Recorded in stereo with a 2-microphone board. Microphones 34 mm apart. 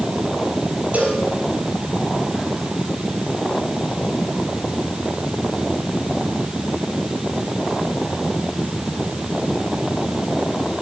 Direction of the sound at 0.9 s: 45° right (ahead or behind).